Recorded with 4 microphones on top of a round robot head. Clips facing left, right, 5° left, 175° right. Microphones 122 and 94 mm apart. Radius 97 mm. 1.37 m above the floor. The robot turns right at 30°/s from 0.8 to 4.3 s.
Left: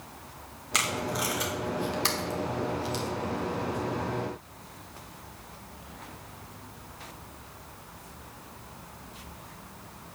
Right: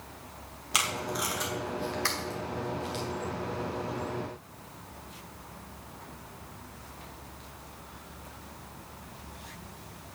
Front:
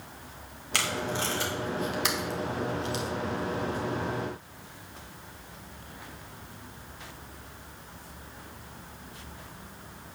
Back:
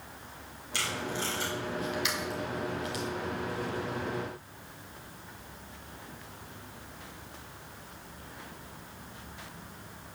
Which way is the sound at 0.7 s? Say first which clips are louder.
Left 2 dB, front 4 dB; 10° right.